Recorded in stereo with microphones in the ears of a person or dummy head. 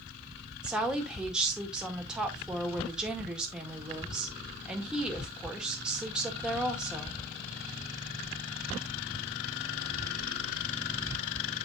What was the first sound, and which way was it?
A woman speaking, 5° right (ahead or behind).